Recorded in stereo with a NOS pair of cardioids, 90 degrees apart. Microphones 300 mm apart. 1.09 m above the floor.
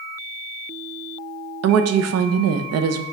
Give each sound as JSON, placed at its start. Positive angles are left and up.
{"t": 1.6, "sound": "a woman speaking", "azimuth_deg": -55, "distance_m": 0.6}